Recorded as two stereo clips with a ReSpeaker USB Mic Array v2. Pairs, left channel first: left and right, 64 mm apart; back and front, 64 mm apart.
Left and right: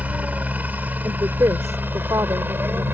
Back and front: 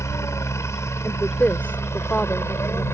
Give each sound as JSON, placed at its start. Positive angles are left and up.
{"t": 0.0, "sound": "a helicopter", "azimuth_deg": -150}
{"t": 1.0, "sound": "a woman speaking", "azimuth_deg": -115}